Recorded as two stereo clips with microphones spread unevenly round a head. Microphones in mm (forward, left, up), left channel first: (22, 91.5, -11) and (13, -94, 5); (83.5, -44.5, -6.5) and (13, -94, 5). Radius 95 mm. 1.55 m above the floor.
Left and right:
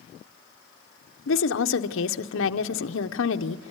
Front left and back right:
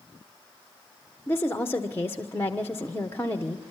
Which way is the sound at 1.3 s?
115° left.